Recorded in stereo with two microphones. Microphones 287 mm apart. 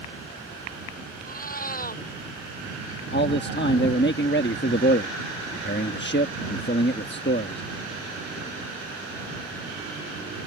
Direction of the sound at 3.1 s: 40° left (ahead or behind).